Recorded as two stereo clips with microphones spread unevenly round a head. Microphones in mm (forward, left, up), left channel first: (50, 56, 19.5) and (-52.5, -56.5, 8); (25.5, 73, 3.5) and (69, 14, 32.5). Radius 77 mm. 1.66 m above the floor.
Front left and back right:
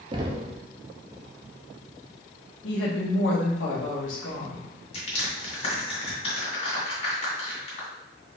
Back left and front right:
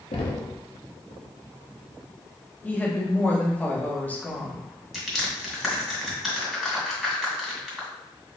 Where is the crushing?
15° left, 2 m.